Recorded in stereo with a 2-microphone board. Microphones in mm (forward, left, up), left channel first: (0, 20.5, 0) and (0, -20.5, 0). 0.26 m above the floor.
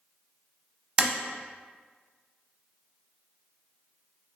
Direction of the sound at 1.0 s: 20° right (ahead or behind).